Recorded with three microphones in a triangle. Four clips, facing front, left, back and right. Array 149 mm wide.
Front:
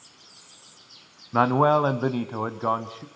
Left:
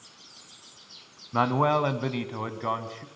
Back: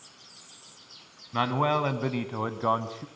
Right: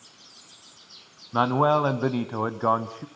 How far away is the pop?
I don't hear a pop.